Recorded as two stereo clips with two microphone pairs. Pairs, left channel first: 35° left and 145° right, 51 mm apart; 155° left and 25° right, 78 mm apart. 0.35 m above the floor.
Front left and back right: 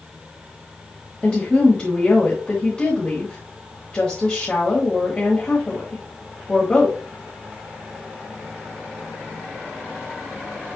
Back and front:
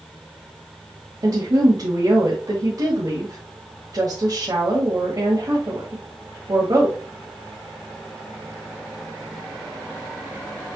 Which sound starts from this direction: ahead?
A woman speaking, at 1.2 s.